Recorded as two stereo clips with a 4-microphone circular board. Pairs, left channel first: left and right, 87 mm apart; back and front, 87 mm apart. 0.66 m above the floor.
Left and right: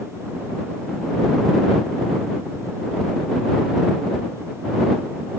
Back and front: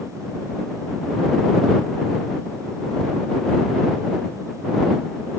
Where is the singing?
No singing in this recording.